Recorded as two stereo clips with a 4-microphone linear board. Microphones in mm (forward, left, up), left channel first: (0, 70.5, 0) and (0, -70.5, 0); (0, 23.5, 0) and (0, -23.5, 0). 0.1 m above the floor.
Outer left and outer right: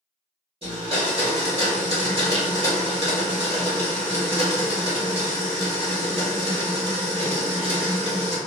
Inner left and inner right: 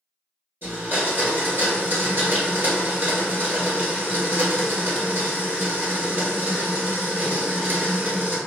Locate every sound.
0.6 s a blender: 45° right (ahead or behind), 1.7 m